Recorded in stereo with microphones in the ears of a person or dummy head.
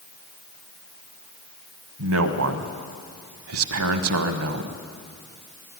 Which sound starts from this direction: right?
A man speaking, at 2.0 s.